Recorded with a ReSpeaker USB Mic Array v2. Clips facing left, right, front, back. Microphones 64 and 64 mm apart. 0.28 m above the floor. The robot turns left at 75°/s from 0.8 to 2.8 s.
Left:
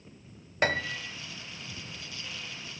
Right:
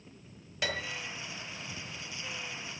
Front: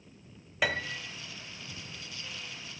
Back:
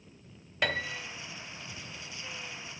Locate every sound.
0.6 s a piano: 85° left, 1.8 m; by 1.0 s 65° left, 1.8 m